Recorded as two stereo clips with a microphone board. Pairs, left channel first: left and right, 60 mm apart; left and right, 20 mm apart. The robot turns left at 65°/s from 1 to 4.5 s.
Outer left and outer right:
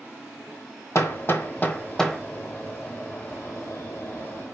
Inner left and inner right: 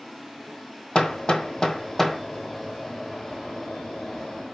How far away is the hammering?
About 1.0 m.